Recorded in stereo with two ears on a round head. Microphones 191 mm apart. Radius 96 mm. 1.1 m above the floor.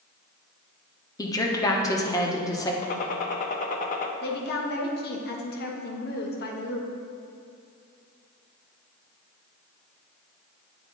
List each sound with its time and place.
1.2 s a woman speaking: 15° left (ahead or behind), 0.9 m
2.8 s a gunshot: 40° left (ahead or behind), 0.6 m
4.2 s a woman speaking: 50° left (ahead or behind), 1.1 m